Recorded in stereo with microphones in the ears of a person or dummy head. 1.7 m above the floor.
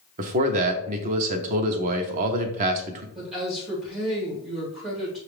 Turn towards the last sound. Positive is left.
turn(degrees=-35)  # may be behind; listen again after turning